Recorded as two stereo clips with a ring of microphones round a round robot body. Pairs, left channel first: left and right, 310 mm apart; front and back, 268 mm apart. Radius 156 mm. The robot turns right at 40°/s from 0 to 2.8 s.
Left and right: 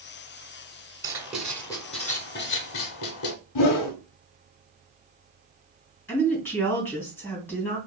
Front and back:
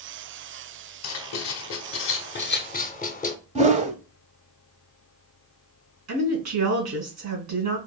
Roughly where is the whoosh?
Behind left.